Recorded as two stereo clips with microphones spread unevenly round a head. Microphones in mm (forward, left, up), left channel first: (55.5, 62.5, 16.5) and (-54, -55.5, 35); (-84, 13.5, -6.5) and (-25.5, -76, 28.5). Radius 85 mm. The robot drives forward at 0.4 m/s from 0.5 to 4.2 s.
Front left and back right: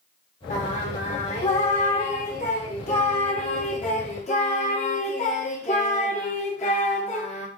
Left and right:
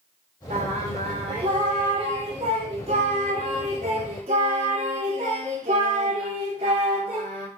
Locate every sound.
0.5 s singing: 5° right, 4 m